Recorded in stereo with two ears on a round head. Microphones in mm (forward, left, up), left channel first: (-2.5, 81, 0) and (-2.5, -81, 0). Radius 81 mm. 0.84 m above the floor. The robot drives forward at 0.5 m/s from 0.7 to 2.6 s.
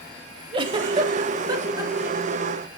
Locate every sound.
0.5 s a giggle: 30° right (ahead or behind), 0.7 m; by 2.5 s 15° right (ahead or behind), 1.2 m